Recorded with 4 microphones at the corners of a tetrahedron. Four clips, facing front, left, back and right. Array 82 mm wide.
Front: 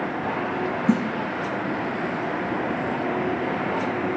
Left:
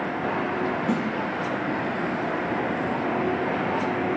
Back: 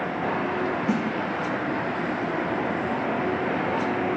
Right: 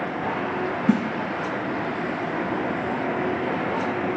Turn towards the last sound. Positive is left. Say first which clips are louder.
# right 7 dB, front 6 dB
turn(degrees=-55)